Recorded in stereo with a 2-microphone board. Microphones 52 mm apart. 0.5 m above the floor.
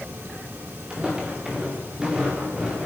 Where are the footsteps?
15° right (ahead or behind), 4 m; by 2.9 s 10° right (ahead or behind), 5.5 m.